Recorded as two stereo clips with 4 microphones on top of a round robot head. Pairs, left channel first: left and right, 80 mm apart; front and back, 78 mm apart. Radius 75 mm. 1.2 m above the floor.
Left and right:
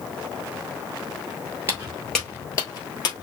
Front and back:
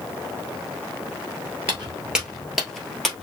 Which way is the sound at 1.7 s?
115° right.